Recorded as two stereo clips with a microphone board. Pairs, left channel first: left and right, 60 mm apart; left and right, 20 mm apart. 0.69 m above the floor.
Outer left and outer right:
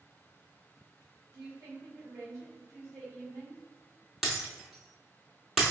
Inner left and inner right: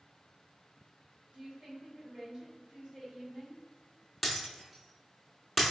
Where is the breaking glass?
Centre (ahead or behind), 0.9 m.